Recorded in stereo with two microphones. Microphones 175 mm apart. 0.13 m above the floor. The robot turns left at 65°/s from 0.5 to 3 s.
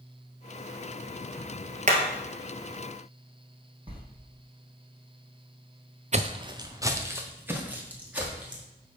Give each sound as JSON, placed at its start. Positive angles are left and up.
{"t": 1.9, "sound": "hammering", "side_deg": -45, "distance_m": 1.3}
{"t": 3.9, "sound": "a sliding door", "side_deg": -30, "distance_m": 1.4}
{"t": 6.1, "sound": "footsteps", "side_deg": -40, "distance_m": 0.5}